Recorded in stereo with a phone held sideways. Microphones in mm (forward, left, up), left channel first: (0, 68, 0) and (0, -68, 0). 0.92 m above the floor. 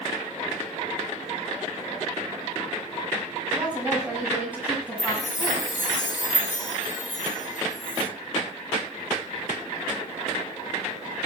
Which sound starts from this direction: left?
A chime, at 5.0 s.